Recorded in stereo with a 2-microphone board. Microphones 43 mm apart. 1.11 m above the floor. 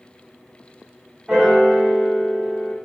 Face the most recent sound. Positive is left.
turn(degrees=-15)  # may be behind; listen again after turning